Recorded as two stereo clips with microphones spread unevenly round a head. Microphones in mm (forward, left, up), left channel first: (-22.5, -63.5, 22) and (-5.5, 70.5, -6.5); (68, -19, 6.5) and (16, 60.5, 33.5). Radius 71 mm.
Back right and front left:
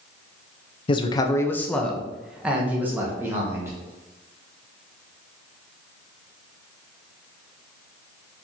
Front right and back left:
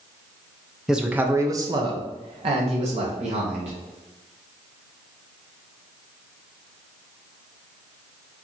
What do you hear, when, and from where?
0.9 s a man speaking: 120° right, 0.6 m; by 3.7 s 150° left, 1.6 m